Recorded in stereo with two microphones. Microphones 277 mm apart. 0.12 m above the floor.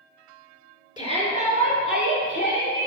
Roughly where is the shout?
Centre.